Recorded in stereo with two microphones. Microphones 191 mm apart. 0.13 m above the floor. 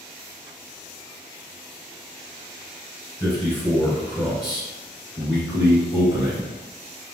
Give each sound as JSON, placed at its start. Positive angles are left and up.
{"t": 3.2, "sound": "a man speaking", "side_deg": 15, "distance_m": 1.6}